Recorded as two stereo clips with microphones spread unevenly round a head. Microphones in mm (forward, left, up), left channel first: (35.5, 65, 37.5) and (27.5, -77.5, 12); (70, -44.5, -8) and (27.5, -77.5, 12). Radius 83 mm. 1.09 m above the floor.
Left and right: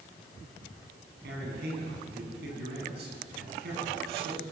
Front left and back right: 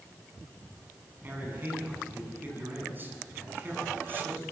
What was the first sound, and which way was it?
A man speaking, 95° right.